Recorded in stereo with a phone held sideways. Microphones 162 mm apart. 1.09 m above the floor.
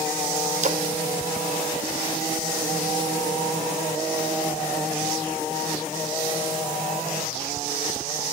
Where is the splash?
50° right (ahead or behind), 0.5 m.